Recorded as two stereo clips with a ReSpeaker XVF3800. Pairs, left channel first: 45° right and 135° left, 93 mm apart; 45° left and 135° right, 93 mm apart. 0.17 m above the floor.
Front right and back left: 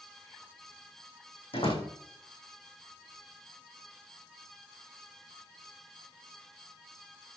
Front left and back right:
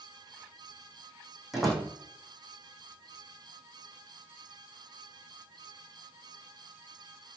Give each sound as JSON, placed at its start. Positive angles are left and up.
{"t": 1.5, "sound": "a door slam", "azimuth_deg": -45, "distance_m": 6.0}